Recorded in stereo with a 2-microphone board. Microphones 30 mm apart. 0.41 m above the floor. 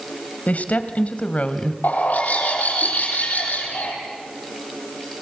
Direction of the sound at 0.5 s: 60° left (ahead or behind).